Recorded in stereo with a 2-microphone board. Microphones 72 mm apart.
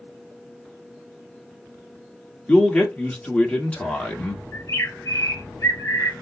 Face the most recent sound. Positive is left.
turn(degrees=60)  # may be behind; listen again after turning